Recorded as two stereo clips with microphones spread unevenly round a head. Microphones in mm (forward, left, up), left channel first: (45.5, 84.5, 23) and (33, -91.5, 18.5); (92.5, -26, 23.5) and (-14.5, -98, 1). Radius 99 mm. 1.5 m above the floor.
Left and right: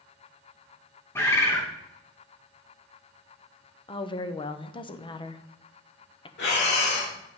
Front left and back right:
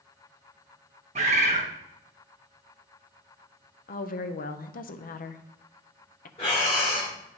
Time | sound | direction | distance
1.1 | a bird | 160° left | 0.9 m
3.9 | a woman speaking | 25° left | 0.8 m
6.4 | breathing | 80° left | 1.8 m